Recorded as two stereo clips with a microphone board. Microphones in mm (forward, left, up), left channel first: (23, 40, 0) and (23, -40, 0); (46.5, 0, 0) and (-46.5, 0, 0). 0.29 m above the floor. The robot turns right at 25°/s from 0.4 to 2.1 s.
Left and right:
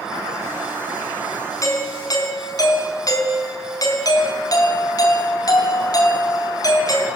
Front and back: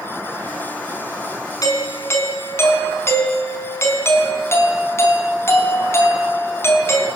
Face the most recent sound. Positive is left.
turn(degrees=60)